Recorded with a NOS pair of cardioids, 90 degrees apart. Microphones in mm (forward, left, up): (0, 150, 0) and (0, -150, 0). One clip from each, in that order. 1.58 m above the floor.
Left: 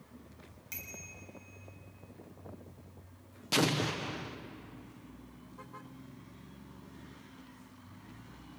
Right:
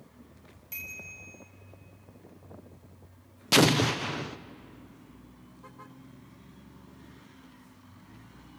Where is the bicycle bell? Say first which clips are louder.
Right 6 dB; 30° left, 7.5 m.